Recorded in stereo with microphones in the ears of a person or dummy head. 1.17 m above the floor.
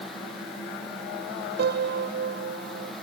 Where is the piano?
55° right (ahead or behind).